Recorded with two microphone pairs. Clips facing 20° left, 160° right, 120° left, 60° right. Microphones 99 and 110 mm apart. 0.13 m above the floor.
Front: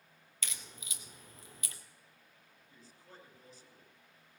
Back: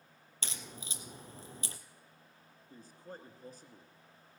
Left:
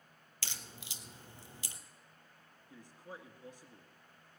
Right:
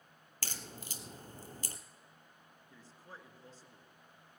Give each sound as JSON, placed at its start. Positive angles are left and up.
{"t": 0.4, "sound": "a crack", "azimuth_deg": -105, "distance_m": 1.1}
{"t": 2.7, "sound": "a man speaking", "azimuth_deg": -175, "distance_m": 1.9}